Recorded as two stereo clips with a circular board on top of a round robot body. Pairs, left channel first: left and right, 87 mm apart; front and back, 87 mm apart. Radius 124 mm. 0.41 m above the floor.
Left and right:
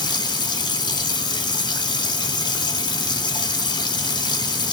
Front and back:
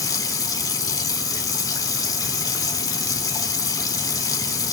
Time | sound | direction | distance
0.0 | running water | 50° left | 0.7 m